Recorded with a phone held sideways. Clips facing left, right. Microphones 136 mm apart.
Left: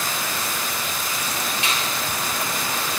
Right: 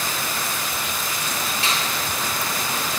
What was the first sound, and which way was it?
A finger snap, 35° right (ahead or behind).